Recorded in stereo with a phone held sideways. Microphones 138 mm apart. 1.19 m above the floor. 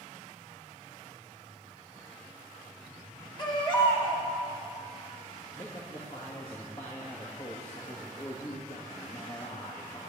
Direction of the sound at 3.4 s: 35° left (ahead or behind).